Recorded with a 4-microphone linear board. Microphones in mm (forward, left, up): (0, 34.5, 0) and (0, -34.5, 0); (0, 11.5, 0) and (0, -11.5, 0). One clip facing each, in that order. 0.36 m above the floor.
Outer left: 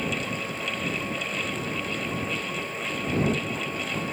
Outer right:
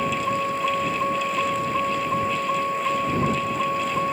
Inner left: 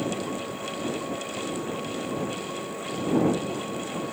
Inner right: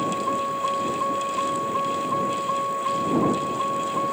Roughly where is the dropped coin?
No dropped coin in this recording.